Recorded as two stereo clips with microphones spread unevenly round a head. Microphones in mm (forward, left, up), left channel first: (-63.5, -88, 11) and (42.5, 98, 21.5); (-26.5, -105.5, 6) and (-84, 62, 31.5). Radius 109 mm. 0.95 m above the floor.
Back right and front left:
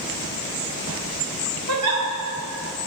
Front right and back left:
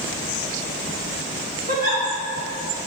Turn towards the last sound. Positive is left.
turn(degrees=55)